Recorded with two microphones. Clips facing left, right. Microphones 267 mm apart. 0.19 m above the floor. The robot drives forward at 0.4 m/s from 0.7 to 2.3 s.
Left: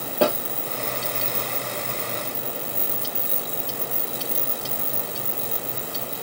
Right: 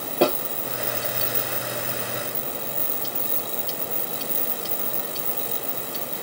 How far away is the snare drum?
About 2 m.